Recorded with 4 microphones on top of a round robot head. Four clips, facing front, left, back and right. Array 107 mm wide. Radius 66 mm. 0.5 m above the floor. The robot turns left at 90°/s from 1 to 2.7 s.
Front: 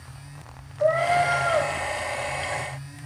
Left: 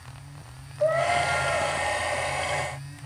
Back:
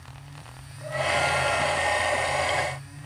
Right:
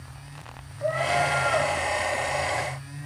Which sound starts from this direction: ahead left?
A cat meowing, at 0.8 s.